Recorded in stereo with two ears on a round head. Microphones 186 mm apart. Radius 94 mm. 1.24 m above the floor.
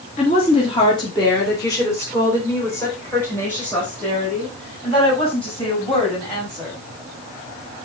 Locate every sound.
0.2 s a woman speaking: 35° left (ahead or behind), 2 m; by 6.8 s 5° left (ahead or behind), 9 m